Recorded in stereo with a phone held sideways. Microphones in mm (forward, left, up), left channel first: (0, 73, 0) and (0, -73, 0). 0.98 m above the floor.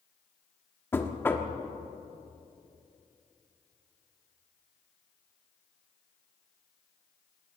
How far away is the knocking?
About 1.3 m.